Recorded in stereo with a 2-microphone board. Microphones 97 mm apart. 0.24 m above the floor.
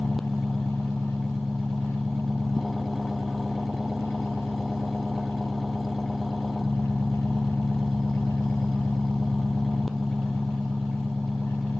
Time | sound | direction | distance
0.0 | an engine running | centre (ahead or behind) | ?